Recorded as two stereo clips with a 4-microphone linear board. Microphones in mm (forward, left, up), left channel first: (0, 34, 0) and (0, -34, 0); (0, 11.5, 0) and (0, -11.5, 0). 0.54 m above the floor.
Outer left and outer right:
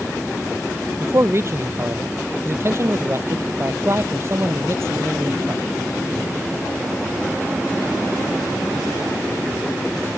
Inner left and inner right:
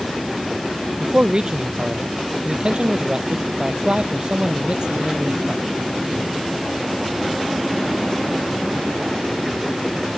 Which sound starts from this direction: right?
A man speaking, at 1.0 s.